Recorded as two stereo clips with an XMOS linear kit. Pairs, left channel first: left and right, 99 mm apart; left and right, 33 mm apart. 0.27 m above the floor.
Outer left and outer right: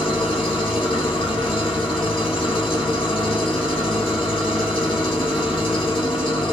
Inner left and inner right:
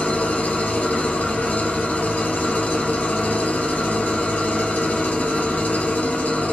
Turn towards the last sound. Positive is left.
turn(degrees=55)  # may be behind; listen again after turning